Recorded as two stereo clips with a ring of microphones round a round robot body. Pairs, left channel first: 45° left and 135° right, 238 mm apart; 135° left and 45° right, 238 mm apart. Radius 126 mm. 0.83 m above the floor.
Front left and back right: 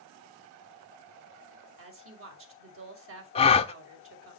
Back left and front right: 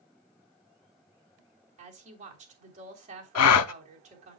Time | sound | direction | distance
1.8 | a woman speaking | 105° right | 3 m
3.4 | a gasp | 110° left | 0.6 m